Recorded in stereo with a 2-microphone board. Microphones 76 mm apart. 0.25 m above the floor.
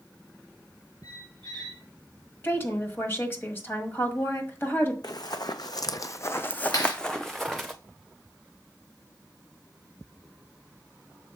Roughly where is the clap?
Left.